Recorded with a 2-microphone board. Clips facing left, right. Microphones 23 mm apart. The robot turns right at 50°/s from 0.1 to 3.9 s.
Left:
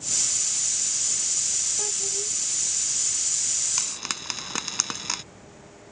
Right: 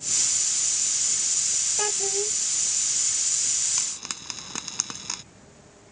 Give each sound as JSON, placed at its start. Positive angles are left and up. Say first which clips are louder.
{"t": 1.8, "sound": "a child speaking", "louder": "right 3 dB", "side_deg": -40}
{"t": 3.8, "sound": "frying", "louder": "left 2 dB", "side_deg": 15}